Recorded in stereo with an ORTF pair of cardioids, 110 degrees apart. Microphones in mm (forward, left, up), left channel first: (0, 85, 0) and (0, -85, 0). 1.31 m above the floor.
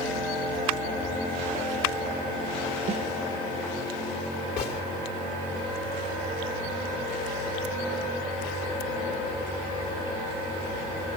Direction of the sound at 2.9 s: 40° right.